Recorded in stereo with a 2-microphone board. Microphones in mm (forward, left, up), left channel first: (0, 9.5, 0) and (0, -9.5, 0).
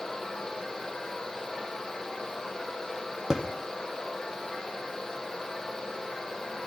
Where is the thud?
35° right (ahead or behind), 3.5 m.